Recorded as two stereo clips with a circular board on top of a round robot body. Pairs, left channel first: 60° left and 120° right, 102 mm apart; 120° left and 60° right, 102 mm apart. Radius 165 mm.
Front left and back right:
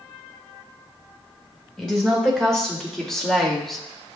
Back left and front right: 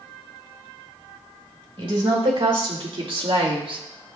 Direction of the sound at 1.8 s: 25° right.